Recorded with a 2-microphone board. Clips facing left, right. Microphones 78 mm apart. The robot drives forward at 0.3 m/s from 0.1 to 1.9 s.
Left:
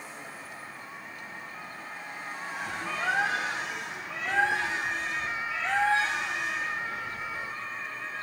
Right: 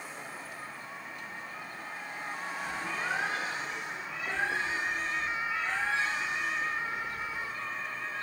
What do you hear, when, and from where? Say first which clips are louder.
2.5 s a bird: left 3 dB; 80° left, 5 m